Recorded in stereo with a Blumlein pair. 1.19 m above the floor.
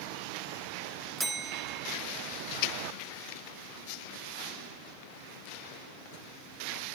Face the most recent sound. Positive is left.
turn(degrees=-10)